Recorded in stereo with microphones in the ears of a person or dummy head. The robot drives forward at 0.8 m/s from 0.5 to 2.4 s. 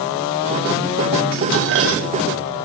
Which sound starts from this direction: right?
Dishes clattering, at 1.3 s.